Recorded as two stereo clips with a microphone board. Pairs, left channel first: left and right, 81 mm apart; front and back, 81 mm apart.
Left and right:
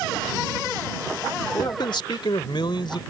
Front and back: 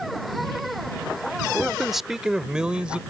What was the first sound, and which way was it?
A man speaking, 90° left.